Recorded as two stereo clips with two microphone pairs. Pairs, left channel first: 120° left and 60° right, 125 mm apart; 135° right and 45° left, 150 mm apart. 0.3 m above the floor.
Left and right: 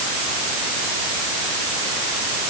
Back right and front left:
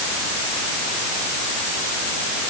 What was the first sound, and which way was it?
Only background noise.